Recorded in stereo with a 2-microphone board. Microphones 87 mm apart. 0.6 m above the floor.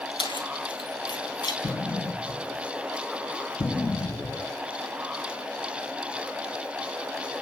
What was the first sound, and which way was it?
Keys jangling, 80° left.